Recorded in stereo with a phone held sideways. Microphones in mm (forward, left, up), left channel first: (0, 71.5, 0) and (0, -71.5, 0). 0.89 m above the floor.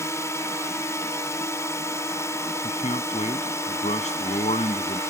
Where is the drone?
20° left (ahead or behind).